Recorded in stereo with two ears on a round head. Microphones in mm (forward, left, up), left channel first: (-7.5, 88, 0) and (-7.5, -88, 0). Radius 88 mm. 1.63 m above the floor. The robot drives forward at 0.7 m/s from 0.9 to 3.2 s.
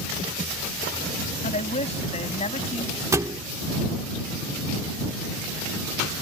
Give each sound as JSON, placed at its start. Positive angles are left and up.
{"t": 1.4, "sound": "a woman speaking", "side_deg": 35}
{"t": 3.1, "sound": "a thud", "side_deg": -15}